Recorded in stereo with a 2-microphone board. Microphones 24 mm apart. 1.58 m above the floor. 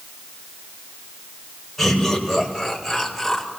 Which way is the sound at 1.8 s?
10° left (ahead or behind).